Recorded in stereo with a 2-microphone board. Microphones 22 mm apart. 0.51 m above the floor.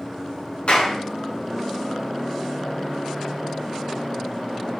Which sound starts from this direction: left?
A clap, at 0.7 s.